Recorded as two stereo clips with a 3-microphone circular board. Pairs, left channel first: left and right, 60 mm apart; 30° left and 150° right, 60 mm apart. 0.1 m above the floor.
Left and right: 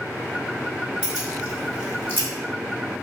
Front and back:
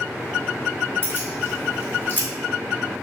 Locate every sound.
1.0 s keys jangling: 20° right, 2.5 m; by 2.3 s 25° right, 3 m